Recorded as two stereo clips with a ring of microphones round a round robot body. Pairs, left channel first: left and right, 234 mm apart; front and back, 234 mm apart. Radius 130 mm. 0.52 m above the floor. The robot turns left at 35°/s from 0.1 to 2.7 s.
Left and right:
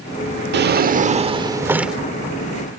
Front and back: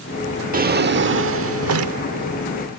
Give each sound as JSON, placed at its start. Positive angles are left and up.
{"t": 0.5, "sound": "a drawer", "azimuth_deg": -130}